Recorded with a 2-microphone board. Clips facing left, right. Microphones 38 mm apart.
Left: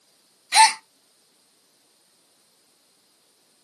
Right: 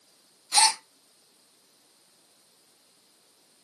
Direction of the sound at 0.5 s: 65° left (ahead or behind).